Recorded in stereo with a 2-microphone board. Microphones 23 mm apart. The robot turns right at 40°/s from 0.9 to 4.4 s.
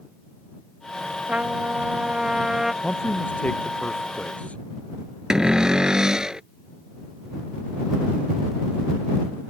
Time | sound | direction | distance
1.3 | a trumpet | 75° right | ?
2.8 | a man speaking | 45° left | ?
5.3 | a cupboard door | 30° right (ahead or behind) | ?